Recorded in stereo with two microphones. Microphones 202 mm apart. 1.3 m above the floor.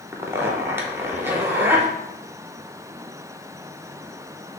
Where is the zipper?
10° right (ahead or behind), 0.6 m.